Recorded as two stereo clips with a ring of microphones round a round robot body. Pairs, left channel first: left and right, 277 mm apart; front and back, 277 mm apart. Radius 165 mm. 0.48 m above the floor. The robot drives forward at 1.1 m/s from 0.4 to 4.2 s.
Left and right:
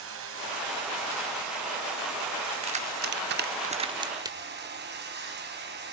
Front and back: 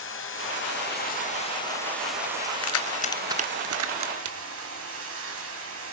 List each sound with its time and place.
0.0 s running water: 45° right, 2.5 m; by 5.9 s 140° right, 3 m
2.6 s keys jangling: 20° right, 0.8 m; by 4.8 s 165° right, 1.2 m